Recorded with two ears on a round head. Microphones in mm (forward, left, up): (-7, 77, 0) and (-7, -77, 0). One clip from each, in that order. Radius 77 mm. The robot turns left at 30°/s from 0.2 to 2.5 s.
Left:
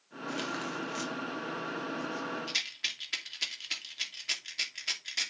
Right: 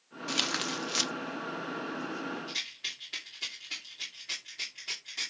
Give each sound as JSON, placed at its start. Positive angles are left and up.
{"t": 0.3, "sound": "tearing paper", "side_deg": -70, "distance_m": 0.8}
{"t": 2.5, "sound": "a rattle", "side_deg": 55, "distance_m": 2.5}